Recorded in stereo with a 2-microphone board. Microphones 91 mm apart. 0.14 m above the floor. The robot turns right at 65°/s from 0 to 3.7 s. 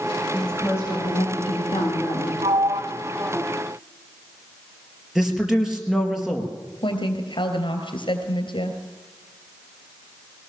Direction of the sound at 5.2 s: 5° right (ahead or behind).